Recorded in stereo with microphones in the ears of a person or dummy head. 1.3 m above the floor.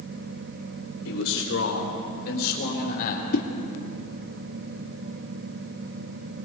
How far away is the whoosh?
About 1.9 m.